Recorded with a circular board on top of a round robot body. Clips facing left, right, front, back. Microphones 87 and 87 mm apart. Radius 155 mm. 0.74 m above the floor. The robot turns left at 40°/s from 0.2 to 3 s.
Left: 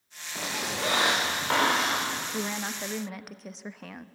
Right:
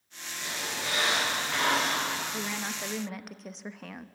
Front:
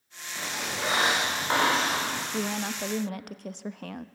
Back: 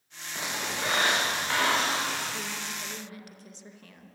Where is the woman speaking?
30° left, 1.0 m; by 4.0 s straight ahead, 1.0 m.